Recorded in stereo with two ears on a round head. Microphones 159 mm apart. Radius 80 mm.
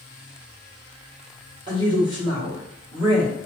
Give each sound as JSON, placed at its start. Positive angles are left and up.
{"t": 1.7, "sound": "a woman speaking", "side_deg": -25, "distance_m": 1.4}